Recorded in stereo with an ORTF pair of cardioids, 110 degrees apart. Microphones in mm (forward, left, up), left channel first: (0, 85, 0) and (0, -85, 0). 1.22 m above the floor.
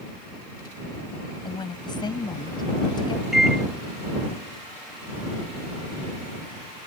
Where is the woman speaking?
25° left.